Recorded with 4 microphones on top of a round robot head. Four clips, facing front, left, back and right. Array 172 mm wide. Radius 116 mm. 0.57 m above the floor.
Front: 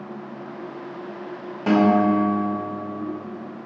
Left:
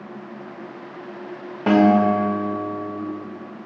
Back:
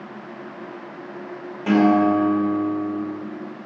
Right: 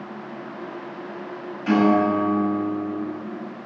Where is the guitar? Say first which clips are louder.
Left 3 dB, back 1 dB; 80° left, 2.5 m.